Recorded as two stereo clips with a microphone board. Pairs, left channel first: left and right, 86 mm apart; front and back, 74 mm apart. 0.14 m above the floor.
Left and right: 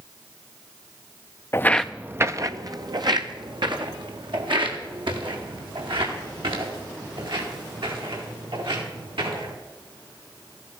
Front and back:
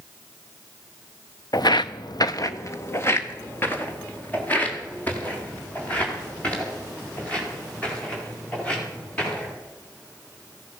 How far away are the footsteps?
About 0.6 m.